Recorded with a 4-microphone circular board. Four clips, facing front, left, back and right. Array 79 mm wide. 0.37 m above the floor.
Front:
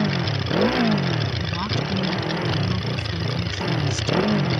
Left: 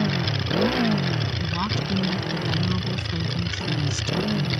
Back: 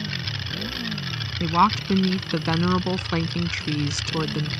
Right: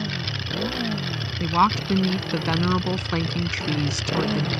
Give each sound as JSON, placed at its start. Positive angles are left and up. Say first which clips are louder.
{"t": 0.0, "sound": "a motorcycle", "louder": "left 5 dB, front 9 dB", "azimuth_deg": 25}
{"t": 1.4, "sound": "a woman speaking", "louder": "right 7 dB, back 7 dB", "azimuth_deg": -140}